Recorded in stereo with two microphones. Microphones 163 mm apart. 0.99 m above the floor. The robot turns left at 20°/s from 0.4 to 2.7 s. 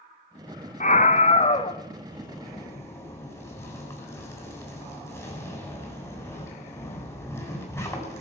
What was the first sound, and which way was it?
A scream, 50° left (ahead or behind).